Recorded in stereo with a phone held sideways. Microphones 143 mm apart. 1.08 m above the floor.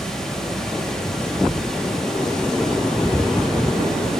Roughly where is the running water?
Centre.